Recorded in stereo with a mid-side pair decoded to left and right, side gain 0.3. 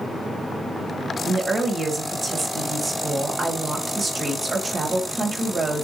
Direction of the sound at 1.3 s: 55° right.